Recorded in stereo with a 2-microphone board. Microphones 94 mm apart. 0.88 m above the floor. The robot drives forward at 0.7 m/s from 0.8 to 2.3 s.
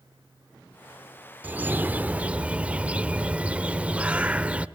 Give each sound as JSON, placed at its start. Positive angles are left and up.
{"t": 1.4, "sound": "a bird", "side_deg": -20, "distance_m": 0.5}